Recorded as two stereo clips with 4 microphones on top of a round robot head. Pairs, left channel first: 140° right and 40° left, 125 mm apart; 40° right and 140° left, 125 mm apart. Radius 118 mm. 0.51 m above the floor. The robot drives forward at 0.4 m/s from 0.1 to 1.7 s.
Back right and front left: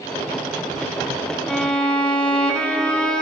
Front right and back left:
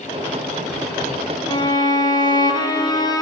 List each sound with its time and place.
1.5 s a violin: 55° right, 1.4 m; by 3.2 s 60° right, 1.3 m